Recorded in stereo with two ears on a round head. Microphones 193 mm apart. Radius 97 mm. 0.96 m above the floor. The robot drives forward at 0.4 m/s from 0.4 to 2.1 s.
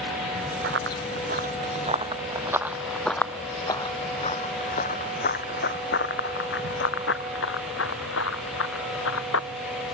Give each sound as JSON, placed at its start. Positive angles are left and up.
{"t": 0.6, "sound": "running footsteps", "side_deg": -55}